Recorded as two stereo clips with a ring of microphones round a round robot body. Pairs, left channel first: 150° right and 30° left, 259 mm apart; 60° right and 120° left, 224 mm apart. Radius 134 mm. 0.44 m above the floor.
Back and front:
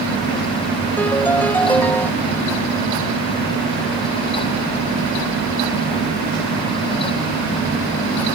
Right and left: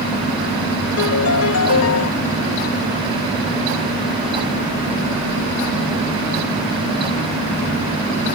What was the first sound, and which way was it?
A piano, 65° right.